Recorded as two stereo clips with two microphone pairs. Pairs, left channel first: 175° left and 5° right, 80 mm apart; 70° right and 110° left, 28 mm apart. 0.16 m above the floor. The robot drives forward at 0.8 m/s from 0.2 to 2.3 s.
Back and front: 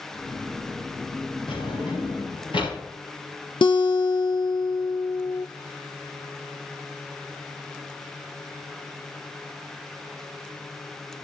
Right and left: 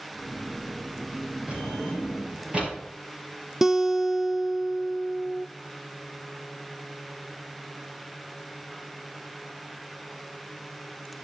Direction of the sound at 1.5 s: 155° left.